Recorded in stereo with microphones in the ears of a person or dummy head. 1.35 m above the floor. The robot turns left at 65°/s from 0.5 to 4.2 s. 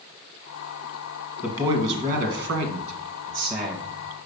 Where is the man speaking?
15° right, 1.7 m; by 3.9 s 175° right, 1.7 m.